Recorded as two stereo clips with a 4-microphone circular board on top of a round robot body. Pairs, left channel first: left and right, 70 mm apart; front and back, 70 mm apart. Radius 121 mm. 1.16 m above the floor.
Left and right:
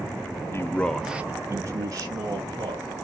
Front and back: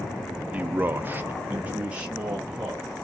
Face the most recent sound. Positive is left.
turn(degrees=-105)